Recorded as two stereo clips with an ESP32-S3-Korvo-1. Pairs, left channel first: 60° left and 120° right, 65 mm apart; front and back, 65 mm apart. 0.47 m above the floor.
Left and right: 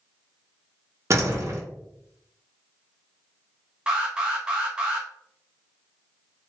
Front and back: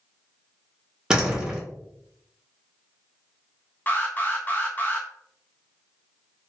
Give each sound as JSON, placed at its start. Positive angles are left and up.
{"t": 1.1, "sound": "a door slam", "azimuth_deg": -105, "distance_m": 0.7}
{"t": 3.9, "sound": "an alarm", "azimuth_deg": -50, "distance_m": 0.6}